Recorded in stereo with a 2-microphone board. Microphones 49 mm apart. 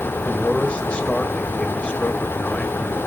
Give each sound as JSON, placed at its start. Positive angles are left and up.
{"t": 0.2, "sound": "a man speaking", "side_deg": 25, "distance_m": 2.5}